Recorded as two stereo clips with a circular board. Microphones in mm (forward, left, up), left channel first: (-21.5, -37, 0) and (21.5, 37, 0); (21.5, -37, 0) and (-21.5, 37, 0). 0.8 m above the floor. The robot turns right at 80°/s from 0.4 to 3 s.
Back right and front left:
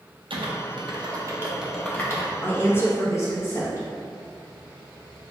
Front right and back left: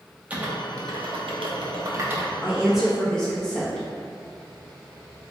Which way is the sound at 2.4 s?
175° left.